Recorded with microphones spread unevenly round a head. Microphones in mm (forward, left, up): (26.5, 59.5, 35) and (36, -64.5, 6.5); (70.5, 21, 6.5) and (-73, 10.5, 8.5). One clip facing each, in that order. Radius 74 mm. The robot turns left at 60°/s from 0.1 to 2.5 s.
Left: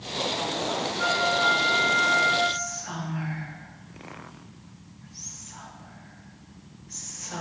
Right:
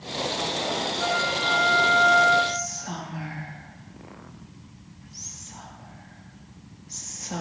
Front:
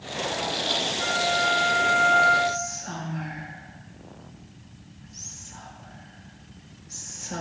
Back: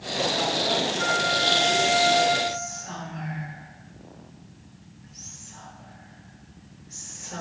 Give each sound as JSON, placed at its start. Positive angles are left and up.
{"t": 1.0, "sound": "a flute", "azimuth_deg": 80, "distance_m": 3.0}
{"t": 2.5, "sound": "whispering", "azimuth_deg": -40, "distance_m": 1.9}